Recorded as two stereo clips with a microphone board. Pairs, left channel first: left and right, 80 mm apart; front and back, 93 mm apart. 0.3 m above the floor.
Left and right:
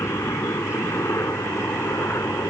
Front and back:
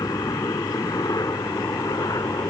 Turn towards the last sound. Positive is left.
turn(degrees=45)